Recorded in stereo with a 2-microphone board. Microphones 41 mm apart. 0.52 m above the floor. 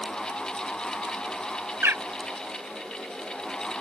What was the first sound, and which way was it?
A bird, 65° right (ahead or behind).